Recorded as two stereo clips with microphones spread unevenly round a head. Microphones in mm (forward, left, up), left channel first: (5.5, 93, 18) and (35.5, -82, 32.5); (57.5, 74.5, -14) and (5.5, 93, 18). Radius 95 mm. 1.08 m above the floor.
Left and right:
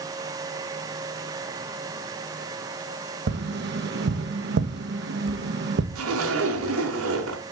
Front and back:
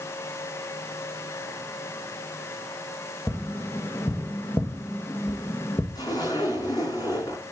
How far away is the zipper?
About 3.5 m.